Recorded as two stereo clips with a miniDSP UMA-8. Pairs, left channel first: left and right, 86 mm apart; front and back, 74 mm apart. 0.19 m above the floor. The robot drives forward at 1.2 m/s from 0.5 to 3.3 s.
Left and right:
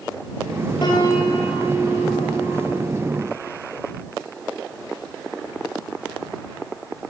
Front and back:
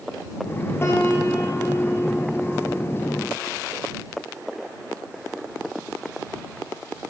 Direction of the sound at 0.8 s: 55° left.